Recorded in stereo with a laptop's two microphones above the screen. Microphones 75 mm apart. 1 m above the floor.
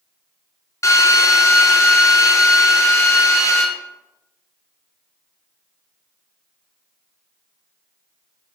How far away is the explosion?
No explosion in this recording.